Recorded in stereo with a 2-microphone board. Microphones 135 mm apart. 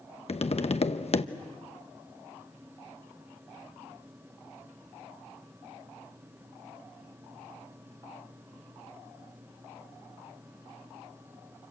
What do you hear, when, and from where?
0.3 s tapping: 50° left (ahead or behind), 0.9 m